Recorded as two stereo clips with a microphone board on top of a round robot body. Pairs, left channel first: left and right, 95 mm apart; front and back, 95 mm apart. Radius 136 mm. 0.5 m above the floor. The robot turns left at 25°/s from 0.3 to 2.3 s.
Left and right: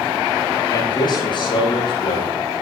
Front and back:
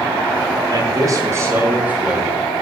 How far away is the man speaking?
About 9.5 m.